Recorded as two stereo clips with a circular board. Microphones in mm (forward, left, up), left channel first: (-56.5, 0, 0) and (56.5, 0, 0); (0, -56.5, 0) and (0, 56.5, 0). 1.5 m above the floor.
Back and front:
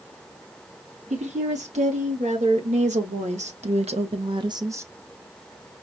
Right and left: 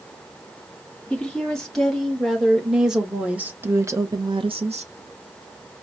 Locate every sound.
1.1 s a woman speaking: 5° right, 2 m; by 4.9 s 70° left, 0.6 m